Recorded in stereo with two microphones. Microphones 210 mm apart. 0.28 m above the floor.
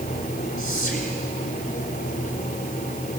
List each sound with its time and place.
0.6 s whispering: 40° left (ahead or behind), 1.8 m